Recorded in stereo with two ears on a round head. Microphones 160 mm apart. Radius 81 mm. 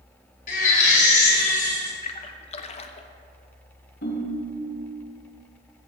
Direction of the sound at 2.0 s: 40° left (ahead or behind).